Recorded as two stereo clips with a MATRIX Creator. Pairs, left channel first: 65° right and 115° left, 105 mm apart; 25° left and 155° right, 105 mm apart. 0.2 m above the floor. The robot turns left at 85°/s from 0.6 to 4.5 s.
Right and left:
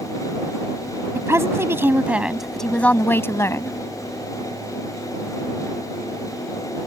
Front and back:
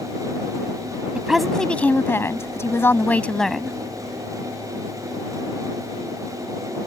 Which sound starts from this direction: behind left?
A woman speaking, at 1.1 s.